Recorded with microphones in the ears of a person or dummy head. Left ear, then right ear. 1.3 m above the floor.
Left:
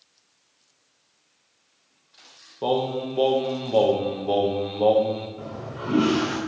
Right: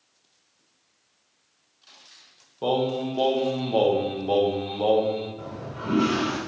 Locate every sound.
2.6 s singing: centre (ahead or behind), 0.9 m
5.4 s a toilet flushing: 15° left (ahead or behind), 1.4 m